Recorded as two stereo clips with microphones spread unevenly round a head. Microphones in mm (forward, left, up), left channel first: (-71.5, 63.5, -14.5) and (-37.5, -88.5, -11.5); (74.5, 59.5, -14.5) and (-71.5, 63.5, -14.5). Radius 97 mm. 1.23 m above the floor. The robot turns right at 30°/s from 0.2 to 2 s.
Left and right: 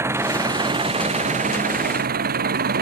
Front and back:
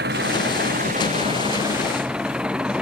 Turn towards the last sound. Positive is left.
turn(degrees=-95)